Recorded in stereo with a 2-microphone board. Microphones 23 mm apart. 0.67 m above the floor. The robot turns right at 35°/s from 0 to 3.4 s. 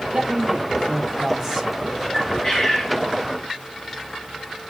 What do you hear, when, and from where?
0.1 s a man speaking: 70° right, 3.5 m; by 2.0 s 5° right, 3.5 m
2.1 s a bird: 15° left (ahead or behind), 6 m; by 3.0 s 45° left (ahead or behind), 6 m